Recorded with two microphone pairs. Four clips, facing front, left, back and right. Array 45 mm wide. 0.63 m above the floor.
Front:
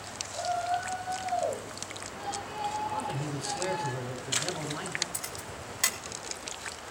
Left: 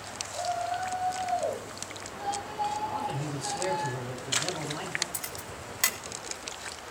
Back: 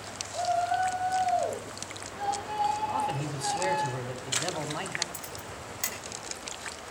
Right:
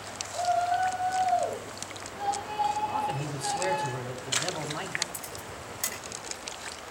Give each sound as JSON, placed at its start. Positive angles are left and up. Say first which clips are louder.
{"t": 0.3, "sound": "a shout", "louder": "right 5 dB, back 3 dB", "azimuth_deg": -160, "distance_m": 7.0}
{"t": 2.9, "sound": "a man speaking", "louder": "right 2 dB, back 3 dB", "azimuth_deg": -170, "distance_m": 4.0}
{"t": 5.1, "sound": "a camera shutter", "louder": "even, even", "azimuth_deg": 60, "distance_m": 3.0}